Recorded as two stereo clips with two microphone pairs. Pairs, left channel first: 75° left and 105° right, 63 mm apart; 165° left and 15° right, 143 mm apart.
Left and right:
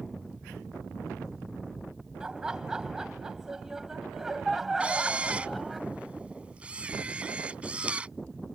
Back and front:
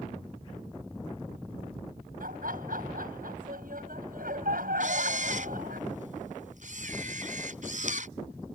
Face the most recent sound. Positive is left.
turn(degrees=-35)